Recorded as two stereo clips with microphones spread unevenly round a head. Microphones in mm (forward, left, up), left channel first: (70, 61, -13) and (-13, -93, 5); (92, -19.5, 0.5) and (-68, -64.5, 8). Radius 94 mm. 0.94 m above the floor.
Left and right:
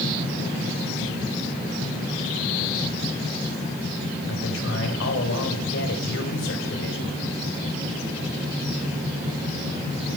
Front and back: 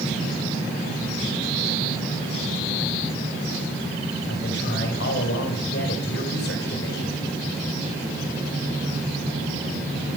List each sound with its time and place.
4.3 s a man speaking: 55° left, 4 m